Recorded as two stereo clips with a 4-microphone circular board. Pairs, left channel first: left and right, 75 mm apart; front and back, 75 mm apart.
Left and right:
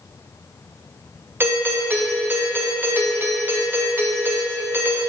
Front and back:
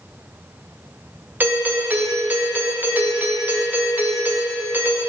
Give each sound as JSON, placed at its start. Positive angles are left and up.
{"t": 1.4, "sound": "a doorbell", "azimuth_deg": -130, "distance_m": 0.7}